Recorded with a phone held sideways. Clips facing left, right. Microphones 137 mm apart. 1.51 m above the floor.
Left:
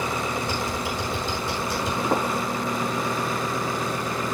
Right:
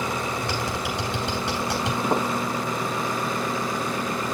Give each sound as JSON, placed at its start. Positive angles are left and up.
{"t": 0.4, "sound": "typing on a keyboard", "side_deg": -75, "distance_m": 4.0}
{"t": 2.0, "sound": "footsteps", "side_deg": -10, "distance_m": 7.0}